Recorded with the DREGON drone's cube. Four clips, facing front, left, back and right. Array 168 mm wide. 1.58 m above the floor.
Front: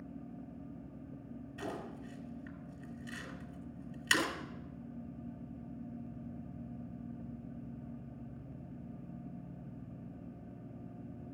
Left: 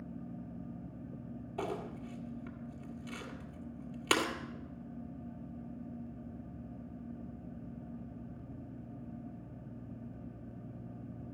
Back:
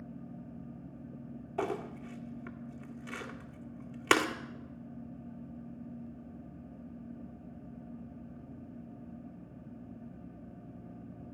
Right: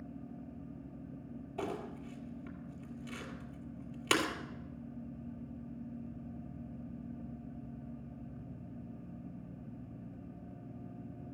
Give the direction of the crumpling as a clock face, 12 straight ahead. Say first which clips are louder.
Left 1 dB, back 8 dB; 6 o'clock.